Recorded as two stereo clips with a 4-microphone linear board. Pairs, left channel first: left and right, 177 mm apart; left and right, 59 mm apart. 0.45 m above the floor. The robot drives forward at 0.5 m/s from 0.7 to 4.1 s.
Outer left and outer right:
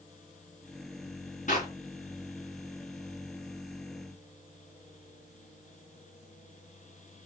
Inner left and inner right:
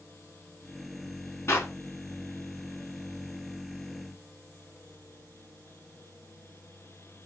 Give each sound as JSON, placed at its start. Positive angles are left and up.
{"t": 1.5, "sound": "a clap", "side_deg": 50, "distance_m": 4.0}